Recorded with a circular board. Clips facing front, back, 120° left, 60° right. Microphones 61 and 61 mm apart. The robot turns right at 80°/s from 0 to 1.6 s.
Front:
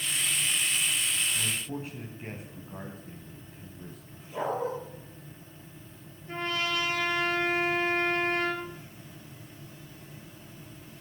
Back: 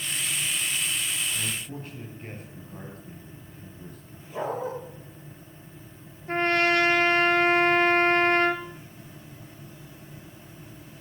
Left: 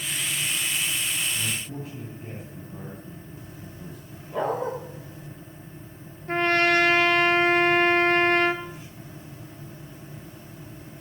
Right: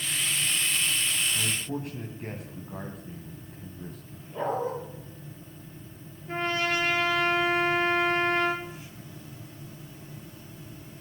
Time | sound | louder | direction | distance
1.4 | a man speaking | front 1 dB, right 1 dB | 85° right | 2.5 m
4.3 | a dog barking | even, left 3 dB | 95° left | 7 m
6.3 | a trumpet | back 9 dB, left 7 dB | 145° left | 1.7 m